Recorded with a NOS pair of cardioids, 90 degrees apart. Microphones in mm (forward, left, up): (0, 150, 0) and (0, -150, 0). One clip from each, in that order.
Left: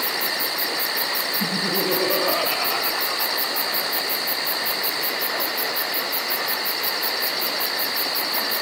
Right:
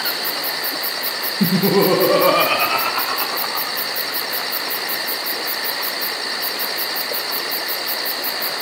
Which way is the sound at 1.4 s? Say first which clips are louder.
Right 6 dB; 60° right.